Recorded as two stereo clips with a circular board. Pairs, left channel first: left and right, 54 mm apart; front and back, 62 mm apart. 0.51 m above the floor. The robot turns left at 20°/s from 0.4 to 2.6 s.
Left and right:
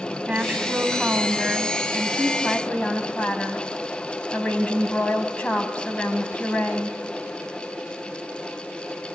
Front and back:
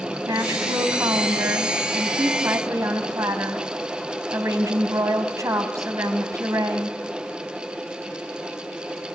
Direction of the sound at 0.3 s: 160° right.